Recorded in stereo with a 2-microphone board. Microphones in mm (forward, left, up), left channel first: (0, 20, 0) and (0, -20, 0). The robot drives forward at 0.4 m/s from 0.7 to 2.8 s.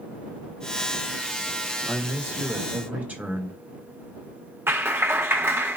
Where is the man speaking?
55° right (ahead or behind), 1.2 m; by 3.6 s 40° right (ahead or behind), 1.4 m.